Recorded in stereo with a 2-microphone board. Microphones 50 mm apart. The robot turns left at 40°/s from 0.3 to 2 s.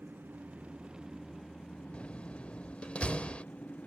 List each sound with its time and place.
0.0 s an engine running: 140° right; by 3.9 s 150° left
1.9 s a door slam: 25° left (ahead or behind)